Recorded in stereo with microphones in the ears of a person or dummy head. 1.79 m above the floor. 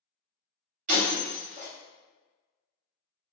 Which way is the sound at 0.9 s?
40° right (ahead or behind).